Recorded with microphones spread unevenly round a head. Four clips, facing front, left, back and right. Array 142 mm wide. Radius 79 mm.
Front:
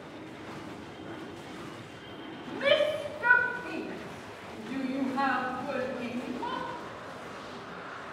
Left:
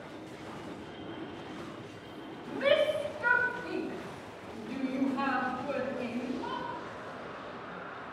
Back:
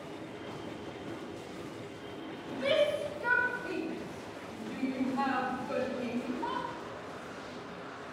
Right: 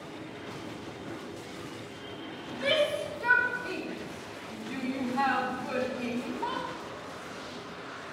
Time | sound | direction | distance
2.5 | a shout | 10° left | 2.5 m